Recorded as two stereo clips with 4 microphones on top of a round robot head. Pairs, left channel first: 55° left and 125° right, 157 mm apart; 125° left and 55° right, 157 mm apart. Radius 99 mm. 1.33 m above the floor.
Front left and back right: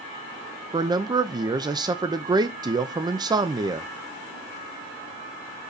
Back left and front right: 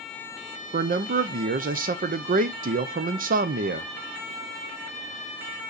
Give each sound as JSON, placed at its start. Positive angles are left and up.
{"t": 0.7, "sound": "a man speaking", "azimuth_deg": -65, "distance_m": 0.8}